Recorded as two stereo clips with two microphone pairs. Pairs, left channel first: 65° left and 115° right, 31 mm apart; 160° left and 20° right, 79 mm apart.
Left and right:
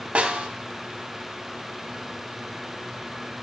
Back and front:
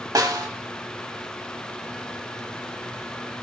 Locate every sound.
0.1 s a snare drum: 65° right, 0.7 m